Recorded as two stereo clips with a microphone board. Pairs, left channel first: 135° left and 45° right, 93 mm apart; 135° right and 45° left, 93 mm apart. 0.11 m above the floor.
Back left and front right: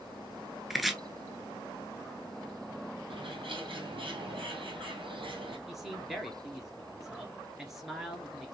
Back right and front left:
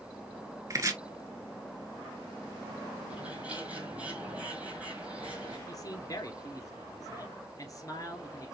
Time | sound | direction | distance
0.7 | chopping | 45° left | 0.7 m
3.1 | a bird | 35° right | 1.4 m
5.7 | a man speaking | 130° right | 1.3 m